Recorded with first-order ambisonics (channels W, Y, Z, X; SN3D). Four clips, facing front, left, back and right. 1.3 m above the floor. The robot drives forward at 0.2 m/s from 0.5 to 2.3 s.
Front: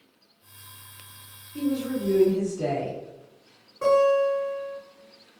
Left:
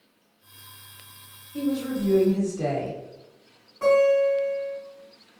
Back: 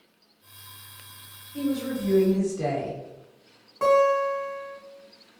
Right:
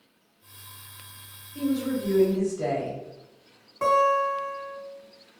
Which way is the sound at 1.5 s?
125° left.